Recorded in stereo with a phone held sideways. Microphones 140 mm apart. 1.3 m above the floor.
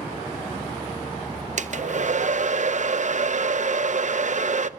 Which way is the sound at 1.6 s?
60° right (ahead or behind).